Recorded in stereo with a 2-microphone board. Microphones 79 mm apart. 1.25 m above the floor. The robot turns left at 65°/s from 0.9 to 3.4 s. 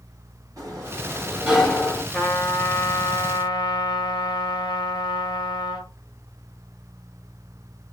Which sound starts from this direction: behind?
A trumpet, at 2.1 s.